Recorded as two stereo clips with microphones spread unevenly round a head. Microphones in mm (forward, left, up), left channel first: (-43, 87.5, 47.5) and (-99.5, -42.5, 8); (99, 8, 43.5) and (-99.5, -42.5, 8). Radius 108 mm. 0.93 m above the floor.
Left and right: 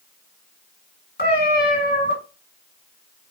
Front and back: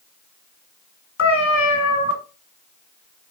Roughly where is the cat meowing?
Ahead left.